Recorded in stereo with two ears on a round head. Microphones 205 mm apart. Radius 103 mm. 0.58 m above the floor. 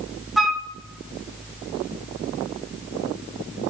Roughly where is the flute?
Centre.